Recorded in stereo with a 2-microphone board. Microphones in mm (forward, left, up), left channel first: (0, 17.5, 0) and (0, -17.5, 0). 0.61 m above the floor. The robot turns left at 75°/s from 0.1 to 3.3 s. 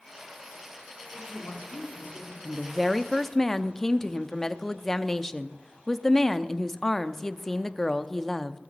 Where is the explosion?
No explosion in this recording.